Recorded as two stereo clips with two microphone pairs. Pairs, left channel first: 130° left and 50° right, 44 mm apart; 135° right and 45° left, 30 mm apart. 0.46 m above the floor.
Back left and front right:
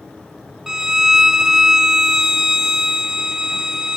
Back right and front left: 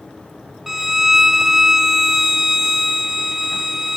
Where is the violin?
5° right, 1.1 m.